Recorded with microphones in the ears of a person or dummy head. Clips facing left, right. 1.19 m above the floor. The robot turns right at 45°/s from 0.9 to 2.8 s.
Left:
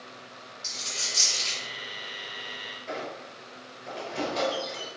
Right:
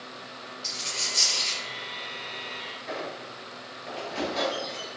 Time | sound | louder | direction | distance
0.6 | a dropped coin | right 3 dB | 5° left (ahead or behind) | 1.5 m
2.9 | a squeak | right 1 dB | centre (ahead or behind) | 0.8 m